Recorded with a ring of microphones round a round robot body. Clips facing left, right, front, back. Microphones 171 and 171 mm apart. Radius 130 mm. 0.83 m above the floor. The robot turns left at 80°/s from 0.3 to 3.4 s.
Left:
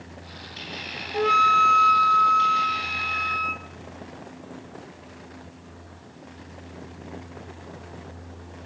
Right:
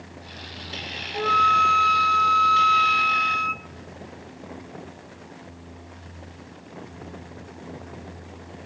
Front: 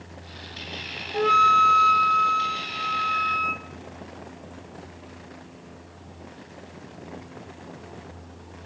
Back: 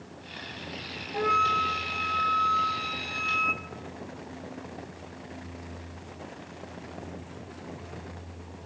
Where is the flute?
45° left, 0.6 m; by 3.7 s 140° right, 0.6 m.